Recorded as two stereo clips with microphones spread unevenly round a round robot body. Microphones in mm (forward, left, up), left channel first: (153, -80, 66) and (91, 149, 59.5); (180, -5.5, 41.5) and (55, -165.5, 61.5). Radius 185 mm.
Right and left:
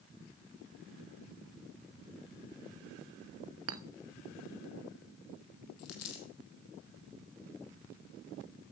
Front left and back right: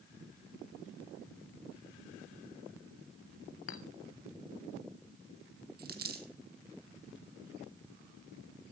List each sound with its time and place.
3.7 s a clink: 80° left, 1.2 m
5.8 s a dropped coin: 100° right, 2.0 m